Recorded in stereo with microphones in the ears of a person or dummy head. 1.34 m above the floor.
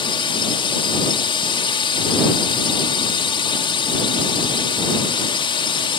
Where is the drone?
25° left (ahead or behind).